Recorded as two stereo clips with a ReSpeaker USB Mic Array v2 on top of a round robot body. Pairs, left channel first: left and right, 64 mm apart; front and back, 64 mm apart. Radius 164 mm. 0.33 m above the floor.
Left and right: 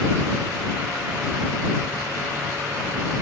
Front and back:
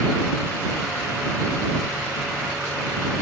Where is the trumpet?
I don't hear a trumpet.